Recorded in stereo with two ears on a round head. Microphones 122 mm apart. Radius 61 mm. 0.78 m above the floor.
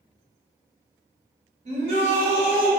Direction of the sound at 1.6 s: 50° right (ahead or behind).